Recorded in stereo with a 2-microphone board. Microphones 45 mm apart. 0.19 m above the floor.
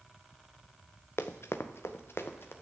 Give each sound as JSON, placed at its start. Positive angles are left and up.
{"t": 1.2, "sound": "running footsteps", "side_deg": 85, "distance_m": 1.1}